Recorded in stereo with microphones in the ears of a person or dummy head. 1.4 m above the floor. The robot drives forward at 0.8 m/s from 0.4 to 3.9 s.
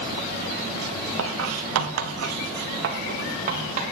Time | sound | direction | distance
1.2 | writing | 80° right | 1.4 m